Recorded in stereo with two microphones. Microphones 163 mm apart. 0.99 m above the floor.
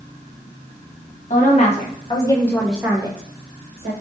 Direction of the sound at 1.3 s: 50° left (ahead or behind).